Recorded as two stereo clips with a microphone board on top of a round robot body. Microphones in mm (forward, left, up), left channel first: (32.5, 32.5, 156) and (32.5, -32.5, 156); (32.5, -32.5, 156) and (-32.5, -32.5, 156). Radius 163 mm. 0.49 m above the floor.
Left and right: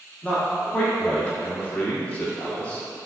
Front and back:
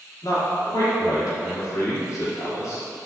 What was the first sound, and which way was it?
A man speaking, 20° left.